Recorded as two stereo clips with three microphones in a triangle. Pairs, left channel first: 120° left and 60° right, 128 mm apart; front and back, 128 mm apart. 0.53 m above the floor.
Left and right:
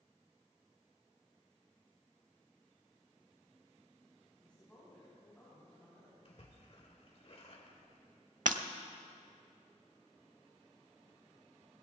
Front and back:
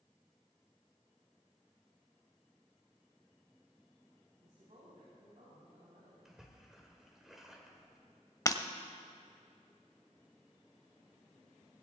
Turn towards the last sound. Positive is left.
turn(degrees=-65)